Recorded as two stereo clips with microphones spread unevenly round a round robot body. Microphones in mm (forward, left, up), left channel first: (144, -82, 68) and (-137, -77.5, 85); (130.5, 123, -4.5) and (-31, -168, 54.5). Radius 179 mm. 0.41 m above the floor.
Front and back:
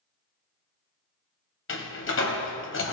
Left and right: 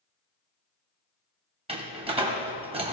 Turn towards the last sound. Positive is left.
turn(degrees=-40)